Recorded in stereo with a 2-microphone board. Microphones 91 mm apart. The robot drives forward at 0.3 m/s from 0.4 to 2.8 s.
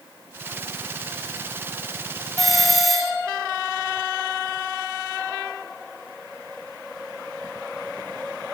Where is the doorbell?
Centre (ahead or behind), 3 m.